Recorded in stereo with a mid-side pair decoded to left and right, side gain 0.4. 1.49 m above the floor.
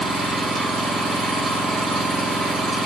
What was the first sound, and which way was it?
An engine running, 65° right.